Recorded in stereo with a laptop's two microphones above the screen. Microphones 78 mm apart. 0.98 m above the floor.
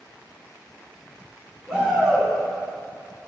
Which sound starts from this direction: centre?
A shout, at 1.7 s.